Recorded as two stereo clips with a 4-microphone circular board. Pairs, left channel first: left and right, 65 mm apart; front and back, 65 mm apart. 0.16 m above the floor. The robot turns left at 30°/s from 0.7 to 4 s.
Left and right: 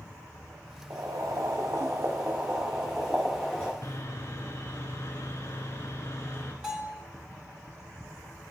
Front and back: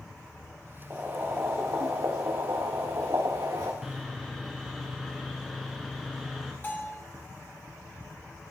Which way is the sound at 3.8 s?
95° left.